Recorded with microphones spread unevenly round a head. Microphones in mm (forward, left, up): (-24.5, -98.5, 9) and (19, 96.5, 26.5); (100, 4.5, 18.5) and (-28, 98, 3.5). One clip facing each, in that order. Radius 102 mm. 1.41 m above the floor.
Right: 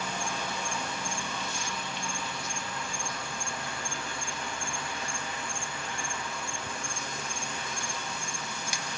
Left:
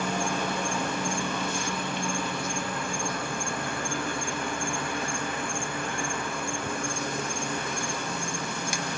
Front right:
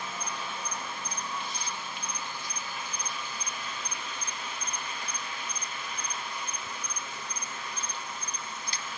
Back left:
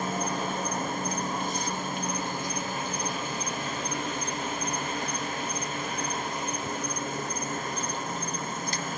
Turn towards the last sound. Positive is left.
turn(degrees=115)